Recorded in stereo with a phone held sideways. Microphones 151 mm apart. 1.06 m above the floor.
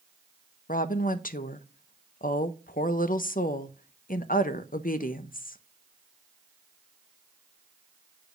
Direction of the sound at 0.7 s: 70° left (ahead or behind).